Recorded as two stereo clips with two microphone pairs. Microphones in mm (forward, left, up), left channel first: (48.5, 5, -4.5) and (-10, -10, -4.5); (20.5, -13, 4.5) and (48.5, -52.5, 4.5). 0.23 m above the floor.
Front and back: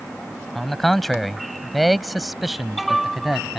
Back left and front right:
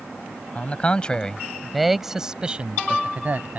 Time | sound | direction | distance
0.6 | a man speaking | 95° left | ?